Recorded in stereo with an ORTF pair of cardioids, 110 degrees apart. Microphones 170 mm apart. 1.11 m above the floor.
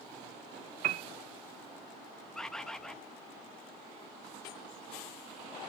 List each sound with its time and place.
0.8 s a piano: 55° right, 0.5 m
2.4 s a bird: 5° left, 0.7 m